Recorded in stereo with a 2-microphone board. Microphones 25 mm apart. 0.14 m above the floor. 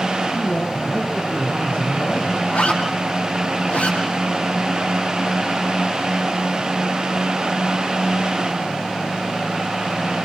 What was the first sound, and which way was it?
A man speaking, 45° left (ahead or behind).